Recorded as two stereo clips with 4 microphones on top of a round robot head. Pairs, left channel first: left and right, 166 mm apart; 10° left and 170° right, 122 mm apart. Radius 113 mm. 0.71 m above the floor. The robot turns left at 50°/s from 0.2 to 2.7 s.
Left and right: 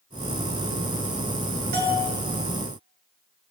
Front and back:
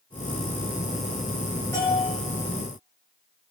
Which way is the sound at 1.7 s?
65° right.